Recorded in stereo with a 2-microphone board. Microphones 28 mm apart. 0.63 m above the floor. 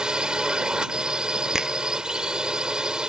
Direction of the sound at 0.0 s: 30° right (ahead or behind).